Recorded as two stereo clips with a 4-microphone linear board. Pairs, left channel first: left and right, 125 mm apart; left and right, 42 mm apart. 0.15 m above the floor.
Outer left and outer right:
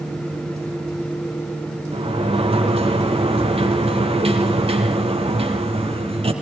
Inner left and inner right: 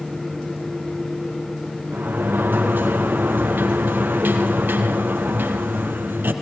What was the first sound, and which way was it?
A sliding door, 50° right (ahead or behind).